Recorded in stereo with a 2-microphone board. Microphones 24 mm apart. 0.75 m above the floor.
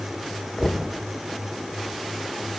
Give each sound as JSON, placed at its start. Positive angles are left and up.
{"t": 0.6, "sound": "knocking", "side_deg": 35, "distance_m": 2.5}